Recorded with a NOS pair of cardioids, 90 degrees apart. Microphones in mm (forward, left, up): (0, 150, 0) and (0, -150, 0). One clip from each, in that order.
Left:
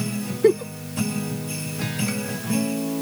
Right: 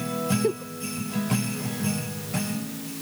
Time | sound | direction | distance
0.4 | a giggle | 70° left | ?